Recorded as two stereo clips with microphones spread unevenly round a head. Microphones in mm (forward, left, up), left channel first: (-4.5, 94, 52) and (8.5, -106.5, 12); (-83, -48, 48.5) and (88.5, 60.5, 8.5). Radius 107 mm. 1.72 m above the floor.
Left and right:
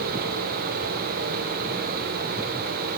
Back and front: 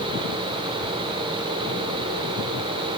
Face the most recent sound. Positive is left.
No sound to turn to.